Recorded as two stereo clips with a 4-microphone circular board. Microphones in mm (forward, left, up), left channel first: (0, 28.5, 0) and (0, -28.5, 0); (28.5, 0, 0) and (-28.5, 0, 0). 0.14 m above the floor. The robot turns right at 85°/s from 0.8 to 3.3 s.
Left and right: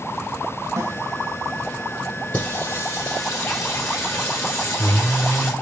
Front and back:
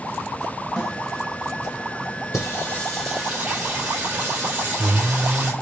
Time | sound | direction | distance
0.8 | a snare drum | 90° right | 7.5 m
2.3 | singing | 35° left | 5 m